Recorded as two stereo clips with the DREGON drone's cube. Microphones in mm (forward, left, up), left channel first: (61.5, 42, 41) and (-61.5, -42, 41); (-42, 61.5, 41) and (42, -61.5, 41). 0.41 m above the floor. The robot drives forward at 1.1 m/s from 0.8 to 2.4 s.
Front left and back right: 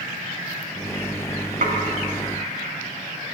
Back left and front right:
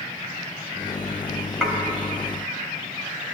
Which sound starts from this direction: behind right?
Dishes clattering, at 1.6 s.